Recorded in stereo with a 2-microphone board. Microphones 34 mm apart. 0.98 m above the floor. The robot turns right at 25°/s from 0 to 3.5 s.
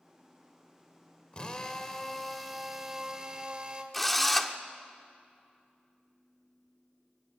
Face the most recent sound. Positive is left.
turn(degrees=5)  # may be behind; listen again after turning